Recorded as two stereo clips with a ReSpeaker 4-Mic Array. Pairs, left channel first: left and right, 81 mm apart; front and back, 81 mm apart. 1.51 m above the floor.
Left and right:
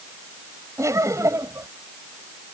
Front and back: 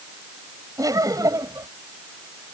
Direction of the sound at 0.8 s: 140° right.